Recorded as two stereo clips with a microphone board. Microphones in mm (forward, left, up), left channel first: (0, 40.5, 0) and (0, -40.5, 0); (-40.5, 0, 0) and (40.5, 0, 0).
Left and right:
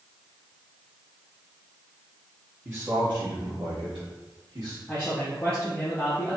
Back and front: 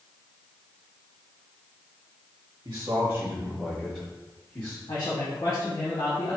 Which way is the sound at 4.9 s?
160° left.